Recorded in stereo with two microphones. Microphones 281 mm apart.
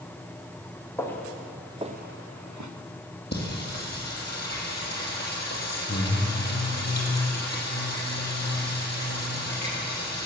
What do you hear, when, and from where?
1.0 s footsteps: 10° left (ahead or behind), 2.0 m; by 2.7 s 85° right, 1.1 m
3.3 s singing: 35° left (ahead or behind), 2.5 m